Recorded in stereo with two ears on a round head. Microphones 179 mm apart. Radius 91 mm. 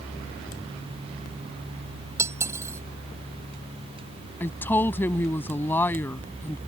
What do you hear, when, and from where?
2.2 s cutlery clinking: 15° right (ahead or behind)
4.4 s a woman speaking: 10° left (ahead or behind)